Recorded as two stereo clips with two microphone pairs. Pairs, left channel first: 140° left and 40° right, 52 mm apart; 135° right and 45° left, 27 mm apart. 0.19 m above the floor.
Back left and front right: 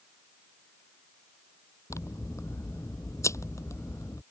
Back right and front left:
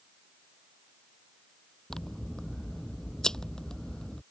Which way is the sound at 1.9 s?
160° left.